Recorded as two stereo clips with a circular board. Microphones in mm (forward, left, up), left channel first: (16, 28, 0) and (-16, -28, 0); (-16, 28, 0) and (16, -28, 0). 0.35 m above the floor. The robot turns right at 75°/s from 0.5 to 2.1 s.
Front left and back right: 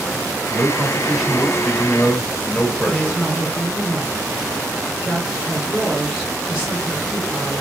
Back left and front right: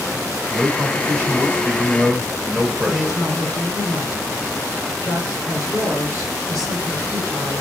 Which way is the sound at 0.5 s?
90° right.